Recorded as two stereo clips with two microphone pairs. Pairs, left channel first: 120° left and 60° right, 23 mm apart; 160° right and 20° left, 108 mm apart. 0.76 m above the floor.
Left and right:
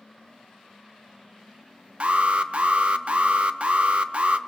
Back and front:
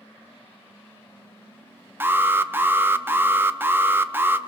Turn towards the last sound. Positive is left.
turn(degrees=-45)